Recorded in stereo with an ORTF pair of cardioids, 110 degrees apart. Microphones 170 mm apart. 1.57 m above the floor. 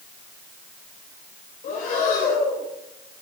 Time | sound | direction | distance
1.6 | breathing | 60° left | 3.5 m